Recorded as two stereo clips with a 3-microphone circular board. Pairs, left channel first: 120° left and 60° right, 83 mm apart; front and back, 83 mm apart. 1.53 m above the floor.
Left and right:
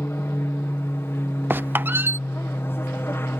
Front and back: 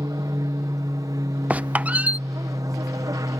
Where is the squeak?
115° right.